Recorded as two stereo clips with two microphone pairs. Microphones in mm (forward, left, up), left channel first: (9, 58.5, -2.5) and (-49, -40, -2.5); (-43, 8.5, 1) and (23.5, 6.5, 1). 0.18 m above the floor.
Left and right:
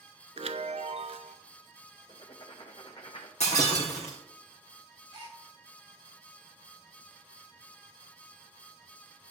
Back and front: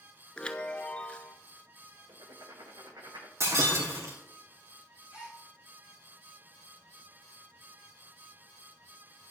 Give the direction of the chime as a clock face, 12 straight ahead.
4 o'clock.